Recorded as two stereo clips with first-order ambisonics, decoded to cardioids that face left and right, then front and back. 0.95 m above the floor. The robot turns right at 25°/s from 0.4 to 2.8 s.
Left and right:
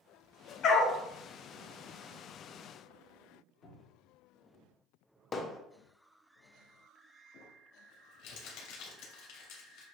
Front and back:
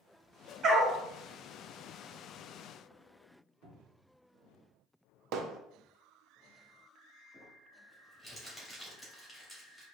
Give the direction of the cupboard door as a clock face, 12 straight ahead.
7 o'clock.